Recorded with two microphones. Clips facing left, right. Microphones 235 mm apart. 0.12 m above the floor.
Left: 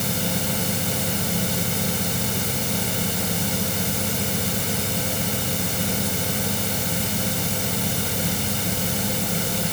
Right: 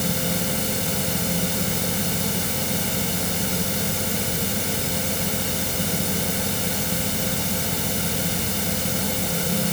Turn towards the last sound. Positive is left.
No sound to turn to.